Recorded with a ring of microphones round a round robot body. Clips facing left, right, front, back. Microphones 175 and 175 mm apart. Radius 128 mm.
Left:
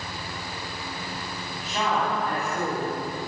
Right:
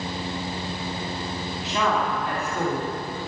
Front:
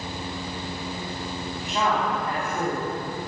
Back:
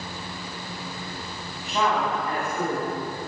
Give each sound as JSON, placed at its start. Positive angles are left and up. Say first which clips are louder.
{"t": 1.6, "sound": "a woman speaking", "louder": "right 1 dB, back 1 dB", "azimuth_deg": -90, "distance_m": 4.0}